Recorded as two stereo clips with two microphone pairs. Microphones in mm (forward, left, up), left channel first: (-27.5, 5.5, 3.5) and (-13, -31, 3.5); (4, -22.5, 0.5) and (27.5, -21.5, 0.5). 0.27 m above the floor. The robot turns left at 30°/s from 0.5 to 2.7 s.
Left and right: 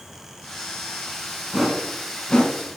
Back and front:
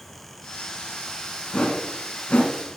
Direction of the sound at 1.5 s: 160° right.